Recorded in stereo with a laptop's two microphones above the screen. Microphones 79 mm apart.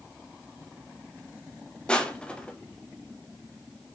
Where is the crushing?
15° left (ahead or behind), 0.6 m.